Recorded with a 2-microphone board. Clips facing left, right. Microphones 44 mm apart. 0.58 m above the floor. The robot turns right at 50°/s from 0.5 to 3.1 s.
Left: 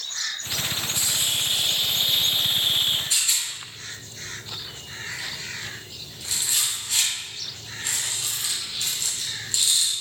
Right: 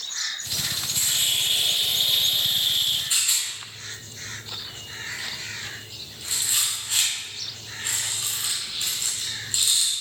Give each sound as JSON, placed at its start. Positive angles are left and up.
{"t": 0.9, "sound": "a hiss", "azimuth_deg": -65, "distance_m": 1.1}
{"t": 3.1, "sound": "a rattle", "side_deg": -25, "distance_m": 4.0}